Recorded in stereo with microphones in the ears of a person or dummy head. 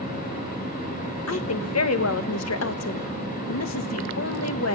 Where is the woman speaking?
75° left (ahead or behind), 1.2 m.